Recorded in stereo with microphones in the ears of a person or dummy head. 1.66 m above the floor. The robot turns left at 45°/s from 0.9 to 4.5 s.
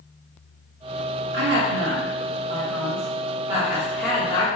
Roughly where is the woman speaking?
Ahead right.